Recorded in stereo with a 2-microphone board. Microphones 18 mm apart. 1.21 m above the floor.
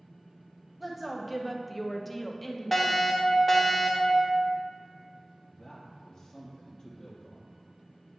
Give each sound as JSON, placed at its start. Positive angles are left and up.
{"t": 0.8, "sound": "a woman speaking", "side_deg": -5, "distance_m": 0.7}
{"t": 2.7, "sound": "a fire alarm", "side_deg": 15, "distance_m": 1.3}
{"t": 5.4, "sound": "a man speaking", "side_deg": 30, "distance_m": 1.0}